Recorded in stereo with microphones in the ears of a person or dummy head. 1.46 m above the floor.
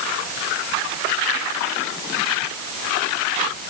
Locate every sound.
Only background noise.